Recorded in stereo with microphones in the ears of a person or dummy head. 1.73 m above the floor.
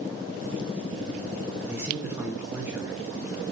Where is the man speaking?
5° right (ahead or behind), 0.7 m.